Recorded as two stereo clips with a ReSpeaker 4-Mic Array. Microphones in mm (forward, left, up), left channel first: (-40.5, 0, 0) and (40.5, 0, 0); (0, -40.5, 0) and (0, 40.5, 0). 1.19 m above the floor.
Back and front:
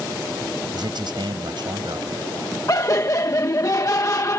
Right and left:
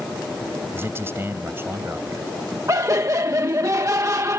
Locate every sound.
0.7 s a man speaking: 30° left
2.7 s laughter: 135° left